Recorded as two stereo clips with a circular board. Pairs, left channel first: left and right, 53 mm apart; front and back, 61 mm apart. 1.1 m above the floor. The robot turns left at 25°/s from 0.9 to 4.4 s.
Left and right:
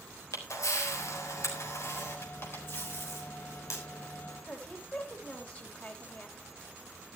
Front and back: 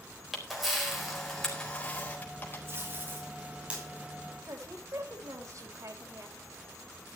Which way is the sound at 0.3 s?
95° left.